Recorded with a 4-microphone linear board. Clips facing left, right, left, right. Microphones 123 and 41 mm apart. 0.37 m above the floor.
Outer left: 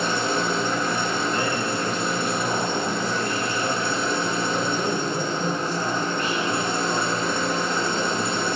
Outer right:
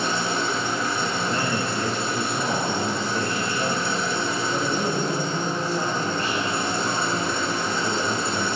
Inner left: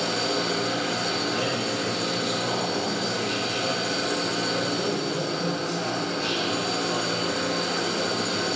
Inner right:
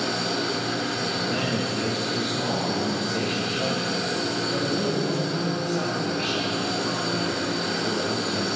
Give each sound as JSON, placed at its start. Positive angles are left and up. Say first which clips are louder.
{"t": 0.0, "sound": "an engine running", "louder": "outer left 1 dB, even", "side_deg": 50, "distance_m": 3.0}
{"t": 1.2, "sound": "a man speaking", "louder": "outer left 1 dB, even", "side_deg": -30, "distance_m": 3.5}